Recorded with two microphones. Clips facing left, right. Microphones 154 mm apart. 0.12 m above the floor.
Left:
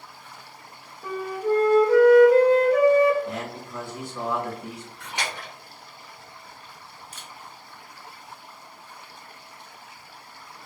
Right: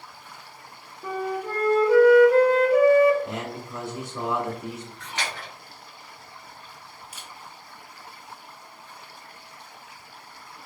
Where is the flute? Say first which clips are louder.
Left 3 dB; 10° right (ahead or behind), 0.9 m.